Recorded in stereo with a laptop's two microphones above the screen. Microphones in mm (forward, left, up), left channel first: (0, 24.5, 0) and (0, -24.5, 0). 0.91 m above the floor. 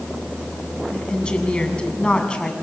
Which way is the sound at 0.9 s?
20° left (ahead or behind).